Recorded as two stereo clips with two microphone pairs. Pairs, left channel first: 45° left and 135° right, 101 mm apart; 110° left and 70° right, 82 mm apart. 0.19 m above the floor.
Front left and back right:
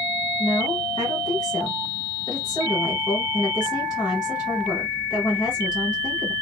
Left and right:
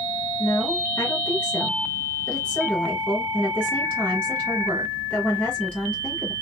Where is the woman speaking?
50° left, 1.3 m.